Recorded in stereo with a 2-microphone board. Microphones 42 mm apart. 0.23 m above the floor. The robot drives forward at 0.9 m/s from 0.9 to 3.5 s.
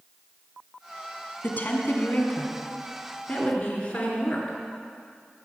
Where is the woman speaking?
45° left (ahead or behind), 1.6 m; by 4.6 s 25° left (ahead or behind), 2.5 m.